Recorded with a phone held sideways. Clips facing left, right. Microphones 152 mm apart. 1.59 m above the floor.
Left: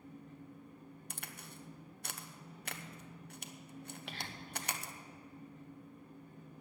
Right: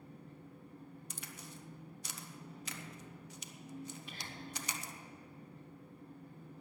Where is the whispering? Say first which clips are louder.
Left 1 dB; 70° left (ahead or behind), 1.6 m.